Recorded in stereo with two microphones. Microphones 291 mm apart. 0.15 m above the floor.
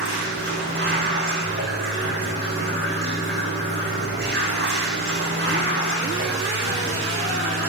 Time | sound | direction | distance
0.0 | running water | 30° right (ahead or behind) | 7.5 m